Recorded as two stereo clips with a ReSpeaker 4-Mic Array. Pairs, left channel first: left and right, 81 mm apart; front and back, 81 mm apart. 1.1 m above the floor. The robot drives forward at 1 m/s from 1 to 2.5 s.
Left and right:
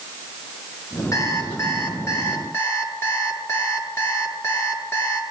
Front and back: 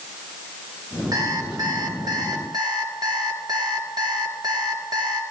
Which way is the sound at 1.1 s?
140° left.